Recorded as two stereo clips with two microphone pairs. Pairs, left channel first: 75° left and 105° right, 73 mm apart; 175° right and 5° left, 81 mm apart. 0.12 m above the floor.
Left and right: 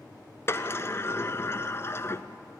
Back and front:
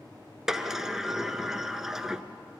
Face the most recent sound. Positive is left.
turn(degrees=80)